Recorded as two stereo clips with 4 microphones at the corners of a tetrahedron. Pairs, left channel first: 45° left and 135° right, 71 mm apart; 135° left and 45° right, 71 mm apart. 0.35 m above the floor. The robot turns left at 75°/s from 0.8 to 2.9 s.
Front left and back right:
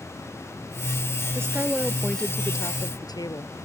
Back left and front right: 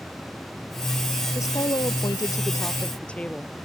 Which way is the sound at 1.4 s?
Straight behind.